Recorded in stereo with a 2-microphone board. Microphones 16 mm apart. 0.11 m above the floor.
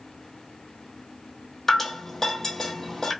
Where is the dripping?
15° left (ahead or behind), 1.4 m.